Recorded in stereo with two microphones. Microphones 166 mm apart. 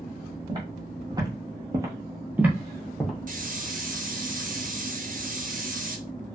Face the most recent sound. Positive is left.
turn(degrees=-55)  # may be behind; listen again after turning